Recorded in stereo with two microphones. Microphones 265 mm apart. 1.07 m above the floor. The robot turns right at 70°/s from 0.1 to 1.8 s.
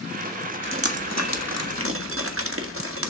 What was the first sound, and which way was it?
Dripping, 45° right (ahead or behind).